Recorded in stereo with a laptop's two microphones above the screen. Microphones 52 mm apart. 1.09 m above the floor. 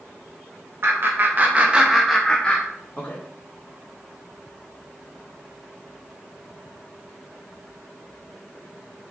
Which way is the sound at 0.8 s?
50° right (ahead or behind).